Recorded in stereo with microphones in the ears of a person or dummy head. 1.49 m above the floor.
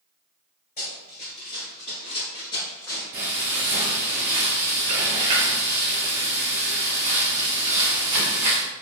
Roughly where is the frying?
Right.